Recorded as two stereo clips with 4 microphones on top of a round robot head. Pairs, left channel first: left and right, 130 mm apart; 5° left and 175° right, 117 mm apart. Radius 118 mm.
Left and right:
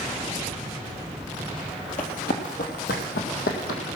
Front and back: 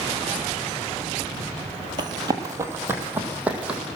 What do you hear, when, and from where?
2.0 s running footsteps: 135° left, 1.6 m; by 3.8 s 100° left, 2.5 m